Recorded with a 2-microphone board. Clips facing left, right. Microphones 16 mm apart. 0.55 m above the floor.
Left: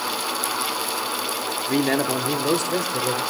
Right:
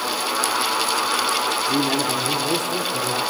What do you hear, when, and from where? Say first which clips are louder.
1.7 s a man speaking: right 1 dB; 30° left (ahead or behind), 1.0 m; by 3.2 s 55° left (ahead or behind), 1.9 m